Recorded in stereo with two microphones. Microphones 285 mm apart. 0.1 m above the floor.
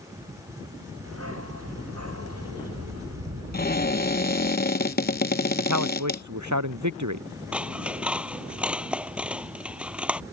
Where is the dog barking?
55° right (ahead or behind); by 4.5 s 65° right (ahead or behind).